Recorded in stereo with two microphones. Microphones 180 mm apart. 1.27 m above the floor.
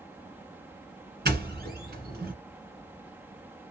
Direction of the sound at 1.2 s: 60° right (ahead or behind).